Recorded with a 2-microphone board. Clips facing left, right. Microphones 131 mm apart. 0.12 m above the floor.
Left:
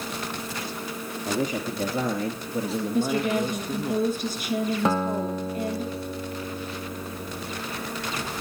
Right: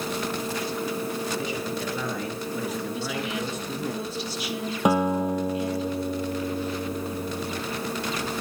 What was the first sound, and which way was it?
A man speaking, 45° left (ahead or behind).